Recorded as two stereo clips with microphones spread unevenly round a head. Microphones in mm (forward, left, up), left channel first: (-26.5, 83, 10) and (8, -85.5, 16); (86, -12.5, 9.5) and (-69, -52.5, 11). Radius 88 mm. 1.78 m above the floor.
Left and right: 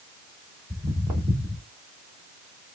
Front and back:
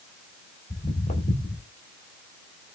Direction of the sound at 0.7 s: 10° right.